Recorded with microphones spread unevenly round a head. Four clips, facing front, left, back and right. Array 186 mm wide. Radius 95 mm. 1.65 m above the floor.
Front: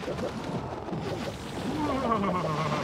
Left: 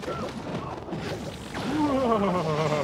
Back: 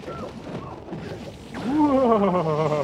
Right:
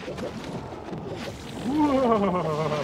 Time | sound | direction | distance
1.5 | laughter | 160° right | ?